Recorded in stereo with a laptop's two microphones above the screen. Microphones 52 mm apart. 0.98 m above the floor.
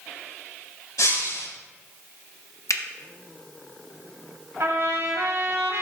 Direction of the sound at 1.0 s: 85° left.